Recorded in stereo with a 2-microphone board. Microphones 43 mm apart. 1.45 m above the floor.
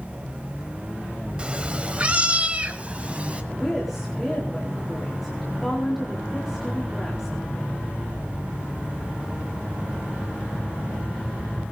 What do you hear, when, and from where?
1.4 s a cat meowing: 25° right (ahead or behind), 1.3 m
3.5 s a woman speaking: centre (ahead or behind), 4 m